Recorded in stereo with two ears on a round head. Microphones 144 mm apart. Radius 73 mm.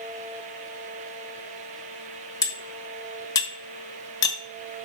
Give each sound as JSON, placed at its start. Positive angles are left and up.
{"t": 2.4, "sound": "cutlery clinking", "side_deg": 25, "distance_m": 1.2}